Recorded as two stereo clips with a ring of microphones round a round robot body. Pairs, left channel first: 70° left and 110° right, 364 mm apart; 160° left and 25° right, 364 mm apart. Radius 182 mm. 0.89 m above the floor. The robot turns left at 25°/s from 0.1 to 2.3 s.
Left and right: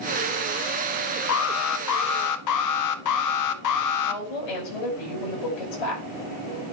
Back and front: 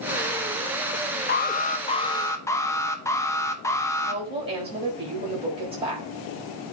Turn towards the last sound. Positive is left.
turn(degrees=55)